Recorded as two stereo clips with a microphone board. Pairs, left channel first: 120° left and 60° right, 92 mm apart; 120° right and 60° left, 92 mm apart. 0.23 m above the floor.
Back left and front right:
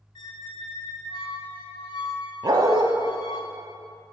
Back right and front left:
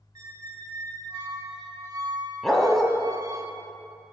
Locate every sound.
0.1 s a squeak: 105° left, 0.6 m
2.4 s a dog barking: 35° right, 0.6 m